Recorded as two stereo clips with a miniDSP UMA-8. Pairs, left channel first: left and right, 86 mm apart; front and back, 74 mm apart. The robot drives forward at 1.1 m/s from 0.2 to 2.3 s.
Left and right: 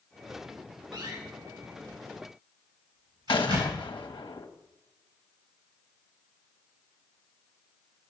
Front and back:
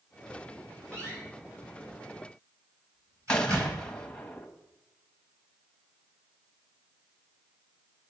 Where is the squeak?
I don't hear a squeak.